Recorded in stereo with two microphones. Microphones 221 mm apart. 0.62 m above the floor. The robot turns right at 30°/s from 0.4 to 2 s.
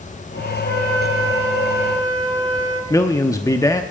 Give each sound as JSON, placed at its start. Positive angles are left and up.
{"t": 0.6, "sound": "a flute", "azimuth_deg": 135, "distance_m": 9.5}
{"t": 2.9, "sound": "a man speaking", "side_deg": 15, "distance_m": 0.7}